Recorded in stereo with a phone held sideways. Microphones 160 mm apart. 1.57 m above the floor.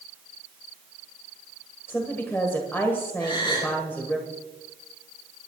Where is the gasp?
30° left (ahead or behind), 6 m.